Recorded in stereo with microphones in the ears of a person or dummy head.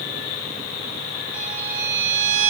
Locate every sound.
1.3 s a violin: 45° right (ahead or behind), 6 m